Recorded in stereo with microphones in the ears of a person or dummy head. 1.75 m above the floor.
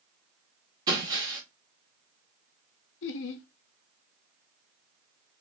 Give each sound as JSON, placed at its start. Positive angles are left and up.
{"t": 0.9, "sound": "breaking glass", "side_deg": -20, "distance_m": 1.9}
{"t": 3.0, "sound": "laughter", "side_deg": 70, "distance_m": 0.7}